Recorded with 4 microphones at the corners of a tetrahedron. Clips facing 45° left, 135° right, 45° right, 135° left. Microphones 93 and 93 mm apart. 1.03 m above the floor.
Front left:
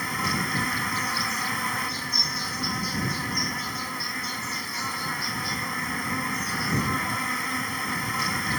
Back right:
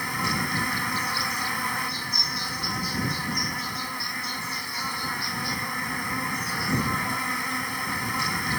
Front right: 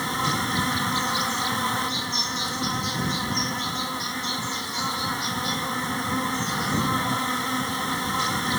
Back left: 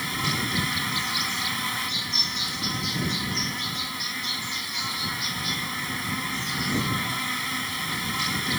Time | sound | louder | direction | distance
0.0 | an insect | even, front right 4 dB | 50° right | ?